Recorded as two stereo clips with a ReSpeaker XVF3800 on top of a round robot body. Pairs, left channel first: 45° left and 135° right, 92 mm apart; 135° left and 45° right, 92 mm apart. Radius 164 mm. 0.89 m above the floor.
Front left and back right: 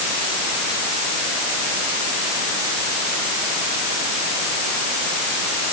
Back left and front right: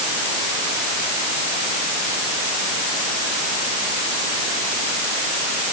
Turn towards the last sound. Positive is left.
No sound to turn to.